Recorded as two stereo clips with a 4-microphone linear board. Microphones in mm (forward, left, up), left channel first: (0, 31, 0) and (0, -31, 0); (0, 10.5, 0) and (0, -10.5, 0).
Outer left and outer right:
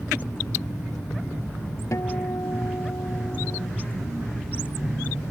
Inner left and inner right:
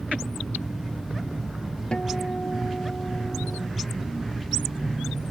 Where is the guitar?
60° left (ahead or behind).